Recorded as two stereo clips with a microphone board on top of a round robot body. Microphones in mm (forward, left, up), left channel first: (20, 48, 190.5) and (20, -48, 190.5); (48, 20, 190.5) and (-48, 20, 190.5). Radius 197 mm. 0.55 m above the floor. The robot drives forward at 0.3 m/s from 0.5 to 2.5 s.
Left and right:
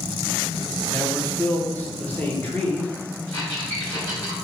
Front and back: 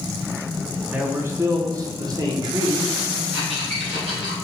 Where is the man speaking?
125° left, 0.8 m; by 2.9 s 160° left, 1.0 m.